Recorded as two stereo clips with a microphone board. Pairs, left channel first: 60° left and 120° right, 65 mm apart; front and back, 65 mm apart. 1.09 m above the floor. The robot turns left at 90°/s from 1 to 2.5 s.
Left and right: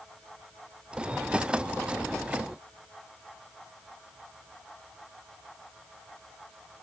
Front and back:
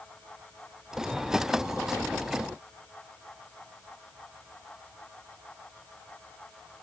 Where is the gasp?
I don't hear a gasp.